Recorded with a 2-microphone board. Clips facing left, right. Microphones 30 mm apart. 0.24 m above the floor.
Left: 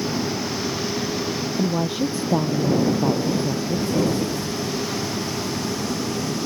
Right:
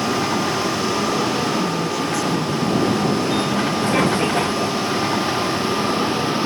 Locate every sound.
0.0 s a vehicle: 70° right (ahead or behind); by 6.5 s 40° right (ahead or behind)
1.6 s a woman speaking: 30° left (ahead or behind)